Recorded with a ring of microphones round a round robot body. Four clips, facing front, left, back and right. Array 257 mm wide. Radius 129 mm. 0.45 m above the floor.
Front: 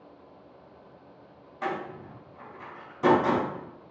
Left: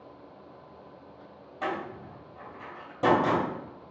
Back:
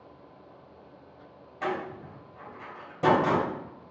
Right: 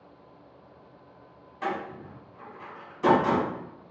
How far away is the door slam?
About 2 m.